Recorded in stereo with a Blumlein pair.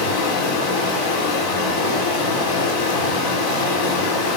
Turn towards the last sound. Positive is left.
turn(degrees=60)